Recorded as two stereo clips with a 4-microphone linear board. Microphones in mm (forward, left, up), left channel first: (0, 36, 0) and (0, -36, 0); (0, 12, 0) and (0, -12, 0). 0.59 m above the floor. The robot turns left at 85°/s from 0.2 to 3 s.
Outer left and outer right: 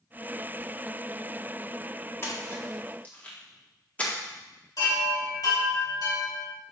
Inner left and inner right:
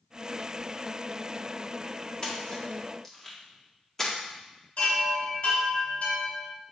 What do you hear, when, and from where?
2.2 s a splash: 35° left (ahead or behind), 1.5 m; by 4.1 s 20° left (ahead or behind), 1.5 m
4.8 s a chime: 65° left (ahead or behind), 3 m